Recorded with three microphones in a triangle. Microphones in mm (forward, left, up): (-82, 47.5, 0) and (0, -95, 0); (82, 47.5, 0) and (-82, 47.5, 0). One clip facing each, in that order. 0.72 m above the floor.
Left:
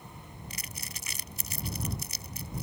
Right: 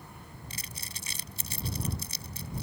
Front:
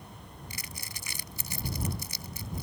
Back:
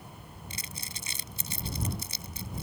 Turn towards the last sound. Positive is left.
turn(degrees=-120)